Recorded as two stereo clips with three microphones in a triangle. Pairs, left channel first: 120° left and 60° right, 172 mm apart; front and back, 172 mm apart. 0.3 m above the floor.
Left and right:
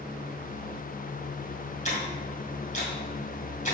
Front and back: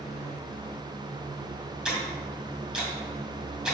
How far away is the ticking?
About 2 m.